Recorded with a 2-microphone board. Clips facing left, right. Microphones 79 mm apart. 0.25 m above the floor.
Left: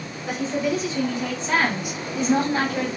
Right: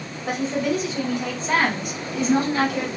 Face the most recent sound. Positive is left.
turn(degrees=40)  # may be behind; listen again after turning